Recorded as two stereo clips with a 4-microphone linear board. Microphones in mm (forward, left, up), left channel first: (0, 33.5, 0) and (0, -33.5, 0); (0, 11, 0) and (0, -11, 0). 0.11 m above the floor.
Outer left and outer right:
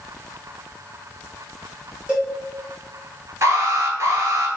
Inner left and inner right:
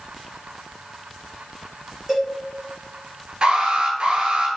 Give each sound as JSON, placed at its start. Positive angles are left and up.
{"t": 2.1, "sound": "a cowbell", "side_deg": -15, "distance_m": 1.8}
{"t": 3.4, "sound": "an alarm", "side_deg": -45, "distance_m": 1.1}